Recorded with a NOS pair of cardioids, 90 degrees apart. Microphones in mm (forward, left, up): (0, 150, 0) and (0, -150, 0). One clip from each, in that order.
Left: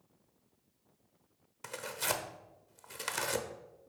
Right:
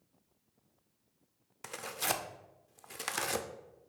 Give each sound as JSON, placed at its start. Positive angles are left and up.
{"t": 1.6, "sound": "tearing paper", "azimuth_deg": -5, "distance_m": 0.5}